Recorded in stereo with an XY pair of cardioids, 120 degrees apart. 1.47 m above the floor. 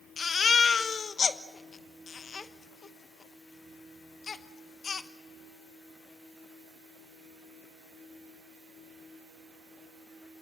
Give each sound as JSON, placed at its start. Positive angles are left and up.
{"t": 0.2, "sound": "a baby crying", "azimuth_deg": 35, "distance_m": 1.1}